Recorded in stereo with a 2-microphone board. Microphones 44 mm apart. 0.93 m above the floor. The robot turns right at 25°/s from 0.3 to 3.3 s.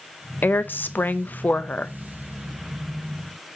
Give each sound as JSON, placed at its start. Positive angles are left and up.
{"t": 0.4, "sound": "a woman speaking", "azimuth_deg": 95, "distance_m": 0.5}